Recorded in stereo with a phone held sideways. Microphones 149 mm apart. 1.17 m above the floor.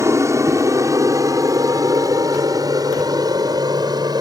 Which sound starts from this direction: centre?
An aircraft, at 0.0 s.